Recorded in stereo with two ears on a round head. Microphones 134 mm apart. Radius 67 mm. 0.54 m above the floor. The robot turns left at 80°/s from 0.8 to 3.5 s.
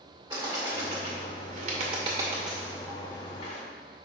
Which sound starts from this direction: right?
A bird, at 0.3 s.